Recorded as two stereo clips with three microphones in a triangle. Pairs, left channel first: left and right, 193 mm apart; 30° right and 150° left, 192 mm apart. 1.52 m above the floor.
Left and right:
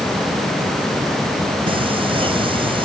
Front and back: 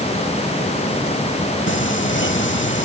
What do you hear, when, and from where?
1.7 s singing: 25° right